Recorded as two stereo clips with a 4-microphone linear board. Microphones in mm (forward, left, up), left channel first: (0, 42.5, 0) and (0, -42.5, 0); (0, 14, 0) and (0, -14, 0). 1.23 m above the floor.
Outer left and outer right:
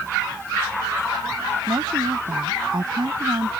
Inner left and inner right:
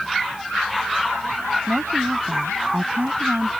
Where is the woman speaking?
60° right (ahead or behind).